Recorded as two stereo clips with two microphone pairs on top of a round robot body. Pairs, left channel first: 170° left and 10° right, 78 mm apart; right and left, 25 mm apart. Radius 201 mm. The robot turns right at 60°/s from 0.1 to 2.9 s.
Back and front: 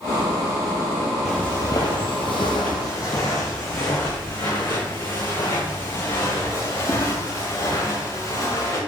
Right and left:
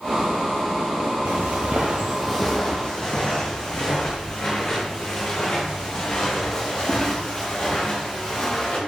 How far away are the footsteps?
About 0.6 m.